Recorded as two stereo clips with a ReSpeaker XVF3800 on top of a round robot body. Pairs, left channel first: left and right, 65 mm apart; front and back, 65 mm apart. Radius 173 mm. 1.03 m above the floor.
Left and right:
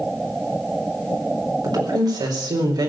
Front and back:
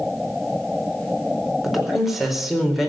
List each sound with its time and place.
1.6 s a woman speaking: 95° right, 4 m